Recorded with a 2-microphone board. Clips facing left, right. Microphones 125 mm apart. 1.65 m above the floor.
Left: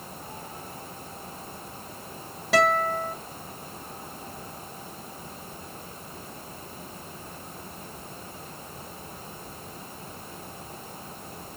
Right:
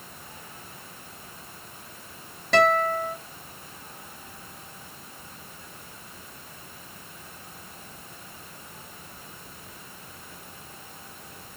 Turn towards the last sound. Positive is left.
turn(degrees=5)  # may be behind; listen again after turning